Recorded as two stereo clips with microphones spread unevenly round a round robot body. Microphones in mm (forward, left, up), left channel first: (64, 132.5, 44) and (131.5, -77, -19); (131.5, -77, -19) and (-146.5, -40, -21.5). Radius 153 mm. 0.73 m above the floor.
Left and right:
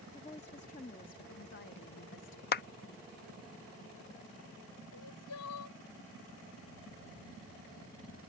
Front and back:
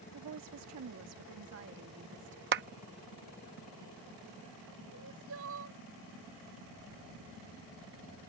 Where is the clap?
155° left.